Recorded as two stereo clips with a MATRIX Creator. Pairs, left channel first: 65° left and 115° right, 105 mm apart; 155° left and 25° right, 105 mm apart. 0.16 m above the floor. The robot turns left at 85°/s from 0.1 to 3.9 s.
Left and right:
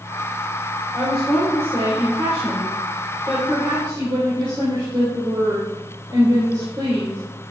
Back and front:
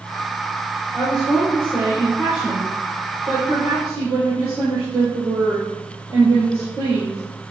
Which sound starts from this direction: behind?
A woman speaking, at 0.9 s.